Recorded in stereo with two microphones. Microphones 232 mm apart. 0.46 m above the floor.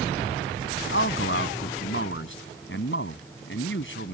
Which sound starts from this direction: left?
A man speaking, at 0.9 s.